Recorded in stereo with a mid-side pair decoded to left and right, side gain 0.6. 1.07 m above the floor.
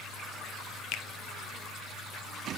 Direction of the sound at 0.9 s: 60° left.